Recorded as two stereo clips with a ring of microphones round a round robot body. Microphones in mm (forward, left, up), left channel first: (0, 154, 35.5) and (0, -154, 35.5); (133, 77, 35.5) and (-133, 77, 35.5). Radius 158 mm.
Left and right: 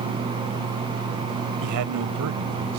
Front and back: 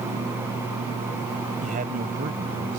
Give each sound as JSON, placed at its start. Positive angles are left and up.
{"t": 1.6, "sound": "a man speaking", "azimuth_deg": -115}